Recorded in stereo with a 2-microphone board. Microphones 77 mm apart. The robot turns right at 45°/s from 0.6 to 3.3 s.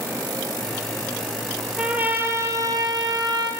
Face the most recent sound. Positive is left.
turn(degrees=-100)